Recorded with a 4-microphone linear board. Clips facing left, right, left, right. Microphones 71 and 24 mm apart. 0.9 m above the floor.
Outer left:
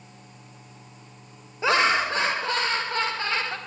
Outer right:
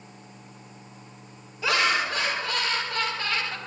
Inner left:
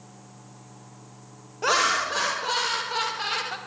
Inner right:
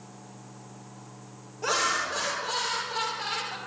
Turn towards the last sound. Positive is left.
turn(degrees=25)  # may be behind; listen again after turning